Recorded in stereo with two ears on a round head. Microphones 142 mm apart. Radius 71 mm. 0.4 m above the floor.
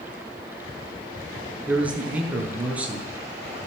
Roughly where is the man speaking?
Centre.